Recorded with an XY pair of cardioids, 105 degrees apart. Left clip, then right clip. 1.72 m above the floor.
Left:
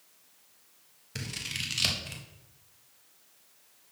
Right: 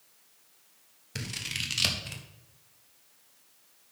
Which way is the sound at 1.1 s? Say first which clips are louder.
Right 1 dB; 15° right.